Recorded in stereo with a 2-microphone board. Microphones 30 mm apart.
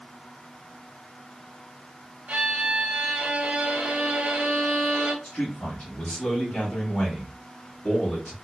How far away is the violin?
About 1.1 m.